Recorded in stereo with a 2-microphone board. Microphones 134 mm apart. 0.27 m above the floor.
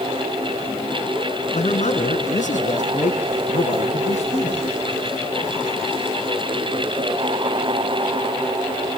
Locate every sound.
1.5 s a man speaking: 60° left (ahead or behind), 3 m; by 4.7 s 50° left (ahead or behind), 5 m